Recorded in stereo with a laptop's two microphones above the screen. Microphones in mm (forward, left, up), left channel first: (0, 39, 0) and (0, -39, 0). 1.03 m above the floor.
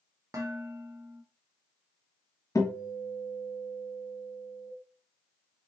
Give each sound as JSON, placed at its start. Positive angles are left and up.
{"t": 0.3, "sound": "dishes clattering", "side_deg": -40, "distance_m": 1.2}
{"t": 2.5, "sound": "a guitar", "side_deg": 40, "distance_m": 1.1}